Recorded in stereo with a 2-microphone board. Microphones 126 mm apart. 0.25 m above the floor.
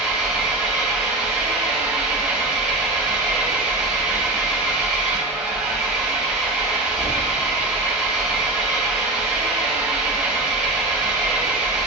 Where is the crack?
I don't hear a crack.